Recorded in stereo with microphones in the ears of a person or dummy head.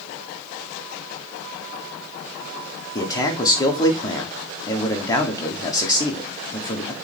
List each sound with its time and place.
3.0 s a man speaking: 15° left (ahead or behind), 1.4 m